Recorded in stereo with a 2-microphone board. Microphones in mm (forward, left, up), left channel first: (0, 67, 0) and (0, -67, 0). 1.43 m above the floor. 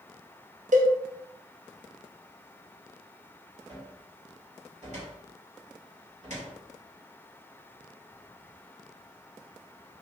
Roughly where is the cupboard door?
Right.